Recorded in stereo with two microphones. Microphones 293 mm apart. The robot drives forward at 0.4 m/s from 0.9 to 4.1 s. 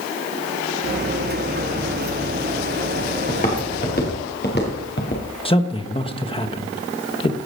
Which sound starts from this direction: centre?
A man speaking, at 5.5 s.